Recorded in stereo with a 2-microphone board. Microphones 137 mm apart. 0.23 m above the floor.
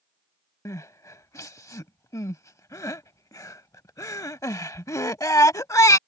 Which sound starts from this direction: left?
Crying, at 0.7 s.